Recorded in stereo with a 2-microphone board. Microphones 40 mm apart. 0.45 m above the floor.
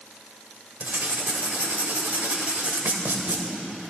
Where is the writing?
55° right (ahead or behind), 2 m.